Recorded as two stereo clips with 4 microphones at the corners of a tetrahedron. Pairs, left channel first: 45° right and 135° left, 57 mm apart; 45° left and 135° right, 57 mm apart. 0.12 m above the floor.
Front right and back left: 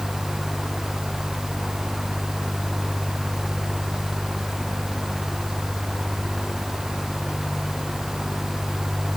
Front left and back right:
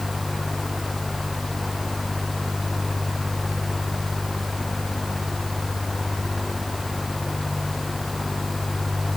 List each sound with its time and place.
Only background noise.